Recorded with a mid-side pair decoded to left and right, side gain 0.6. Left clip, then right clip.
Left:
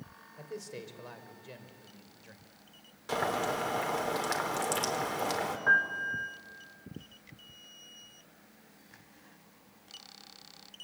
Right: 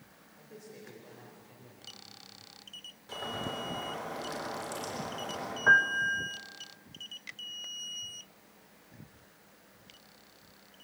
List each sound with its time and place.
0.4 s a man speaking: 55° left, 4 m; by 2.5 s 70° left, 4 m
3.1 s boiling: 55° left, 4 m
5.7 s a piano: 20° right, 1.3 m